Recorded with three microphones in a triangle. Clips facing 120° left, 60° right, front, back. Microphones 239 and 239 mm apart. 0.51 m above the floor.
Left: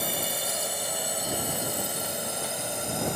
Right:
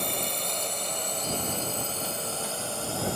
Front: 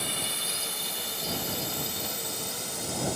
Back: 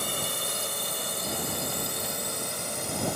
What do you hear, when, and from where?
0.0 s a drone: 155° right; by 3.2 s 170° right